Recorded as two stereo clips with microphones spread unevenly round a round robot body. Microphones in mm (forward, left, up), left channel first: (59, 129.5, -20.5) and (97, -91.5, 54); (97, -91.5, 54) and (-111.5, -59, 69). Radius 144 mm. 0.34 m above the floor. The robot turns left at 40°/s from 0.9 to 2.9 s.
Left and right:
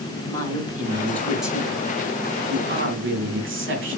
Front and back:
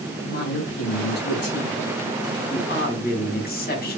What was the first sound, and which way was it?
A woman speaking, 35° left.